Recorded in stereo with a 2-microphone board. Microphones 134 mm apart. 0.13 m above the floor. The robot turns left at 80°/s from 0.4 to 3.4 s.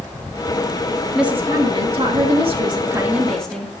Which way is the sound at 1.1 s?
5° right.